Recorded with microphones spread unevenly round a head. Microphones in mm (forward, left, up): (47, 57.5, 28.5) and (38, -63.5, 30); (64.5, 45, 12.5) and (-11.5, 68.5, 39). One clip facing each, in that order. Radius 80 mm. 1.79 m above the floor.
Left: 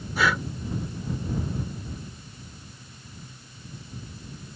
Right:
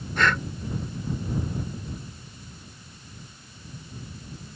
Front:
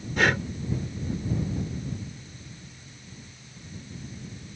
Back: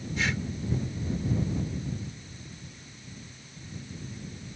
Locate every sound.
0.2 s breathing: 5° left